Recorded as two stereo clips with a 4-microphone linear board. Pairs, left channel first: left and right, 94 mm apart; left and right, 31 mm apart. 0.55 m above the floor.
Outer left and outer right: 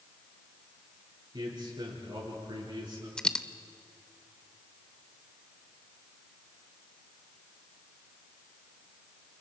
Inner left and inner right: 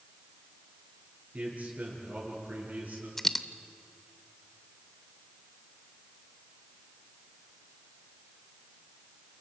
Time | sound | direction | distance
1.3 | a man speaking | 55° right (ahead or behind) | 8.5 m
3.2 | a dropped coin | 10° left (ahead or behind) | 0.7 m